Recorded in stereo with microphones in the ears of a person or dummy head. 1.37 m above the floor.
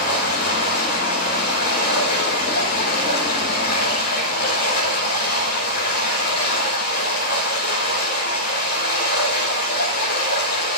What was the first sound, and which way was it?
Running water, 60° left (ahead or behind).